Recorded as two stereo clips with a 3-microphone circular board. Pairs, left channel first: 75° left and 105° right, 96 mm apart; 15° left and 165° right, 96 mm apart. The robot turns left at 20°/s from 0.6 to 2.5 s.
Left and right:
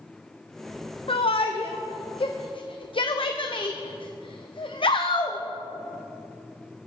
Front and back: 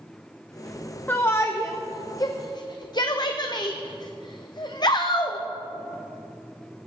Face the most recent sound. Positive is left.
turn(degrees=55)